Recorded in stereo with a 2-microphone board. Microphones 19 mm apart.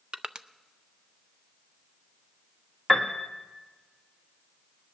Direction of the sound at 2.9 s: 15° left (ahead or behind).